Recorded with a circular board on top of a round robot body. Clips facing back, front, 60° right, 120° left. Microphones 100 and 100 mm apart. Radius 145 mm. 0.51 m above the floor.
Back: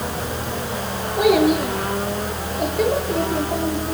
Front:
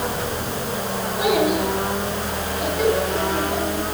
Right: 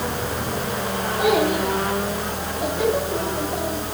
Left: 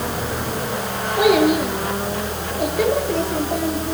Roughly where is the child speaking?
Behind left.